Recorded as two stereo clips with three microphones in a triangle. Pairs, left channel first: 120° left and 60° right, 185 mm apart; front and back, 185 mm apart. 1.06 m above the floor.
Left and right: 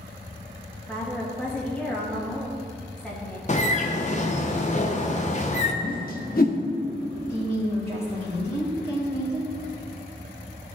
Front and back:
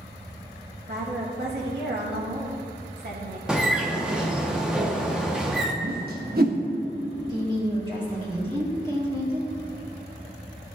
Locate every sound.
0.9 s a woman speaking: 155° right, 1.9 m
3.5 s a bird: 95° left, 0.7 m
5.8 s a whoosh: 150° left, 0.8 m
7.3 s a woman speaking: 115° right, 2.5 m